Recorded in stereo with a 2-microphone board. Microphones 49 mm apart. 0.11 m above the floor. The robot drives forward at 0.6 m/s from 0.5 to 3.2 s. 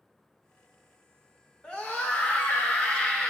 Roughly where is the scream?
Left.